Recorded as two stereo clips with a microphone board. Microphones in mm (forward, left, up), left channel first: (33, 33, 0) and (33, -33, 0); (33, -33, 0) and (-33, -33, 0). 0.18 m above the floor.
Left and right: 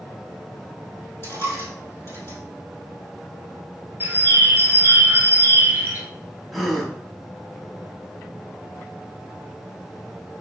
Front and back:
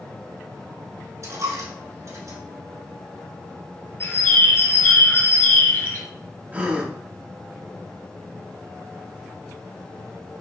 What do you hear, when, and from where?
1.2 s a dropped coin: 140° left, 2.5 m
4.0 s a bird: 40° right, 1.1 m
6.5 s a gasp: straight behind, 0.9 m